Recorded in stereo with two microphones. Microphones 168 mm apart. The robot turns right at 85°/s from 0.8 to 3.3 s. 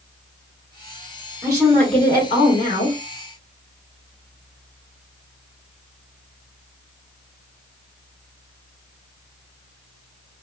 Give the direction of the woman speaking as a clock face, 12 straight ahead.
1 o'clock.